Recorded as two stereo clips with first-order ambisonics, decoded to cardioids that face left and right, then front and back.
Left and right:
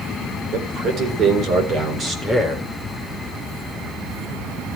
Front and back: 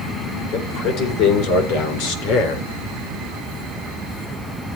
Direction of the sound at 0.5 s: 45° right.